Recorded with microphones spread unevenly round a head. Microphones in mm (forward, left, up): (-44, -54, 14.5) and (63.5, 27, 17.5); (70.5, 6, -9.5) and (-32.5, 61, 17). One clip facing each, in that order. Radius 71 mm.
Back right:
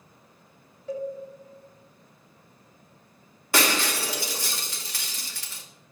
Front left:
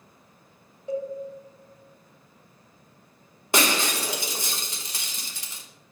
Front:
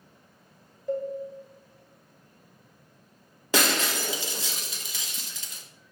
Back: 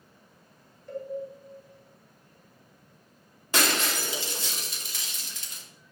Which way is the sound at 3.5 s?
30° right.